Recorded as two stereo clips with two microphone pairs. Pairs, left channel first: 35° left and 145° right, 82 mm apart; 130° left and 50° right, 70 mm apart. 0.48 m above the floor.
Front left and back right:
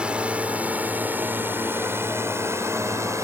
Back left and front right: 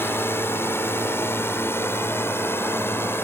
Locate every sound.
0.0 s a drone: 145° left; by 3.2 s 175° left